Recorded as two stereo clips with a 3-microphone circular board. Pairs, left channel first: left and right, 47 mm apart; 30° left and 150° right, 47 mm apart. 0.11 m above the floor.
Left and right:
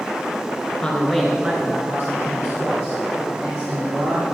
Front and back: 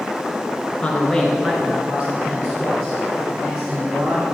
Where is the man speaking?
55° left, 1.3 m; by 4.4 s 100° right, 4.5 m.